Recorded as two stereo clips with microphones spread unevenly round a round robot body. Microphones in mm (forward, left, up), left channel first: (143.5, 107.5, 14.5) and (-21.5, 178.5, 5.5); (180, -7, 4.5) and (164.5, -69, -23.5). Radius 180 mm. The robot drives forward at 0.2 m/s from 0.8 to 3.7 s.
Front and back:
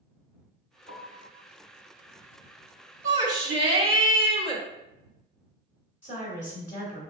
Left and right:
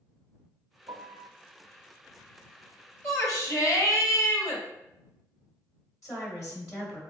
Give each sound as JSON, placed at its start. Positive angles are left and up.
{"t": 0.9, "sound": "a piano", "azimuth_deg": -70, "distance_m": 0.5}
{"t": 3.0, "sound": "a shout", "azimuth_deg": 145, "distance_m": 0.7}
{"t": 6.0, "sound": "a woman speaking", "azimuth_deg": -140, "distance_m": 1.3}